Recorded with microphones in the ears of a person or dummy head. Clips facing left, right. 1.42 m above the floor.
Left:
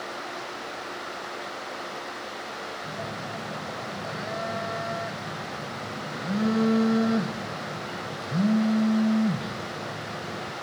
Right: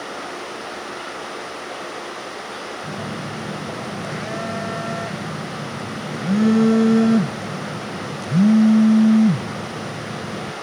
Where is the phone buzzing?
35° right (ahead or behind), 0.5 m.